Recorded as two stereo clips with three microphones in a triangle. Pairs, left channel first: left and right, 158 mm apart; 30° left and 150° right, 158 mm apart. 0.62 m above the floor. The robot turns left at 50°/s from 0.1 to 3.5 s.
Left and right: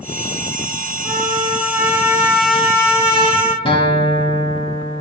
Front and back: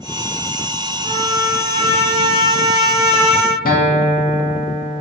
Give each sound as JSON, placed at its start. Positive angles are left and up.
{"t": 1.0, "sound": "a trumpet", "azimuth_deg": -110, "distance_m": 0.8}
{"t": 3.6, "sound": "a guitar", "azimuth_deg": 40, "distance_m": 0.8}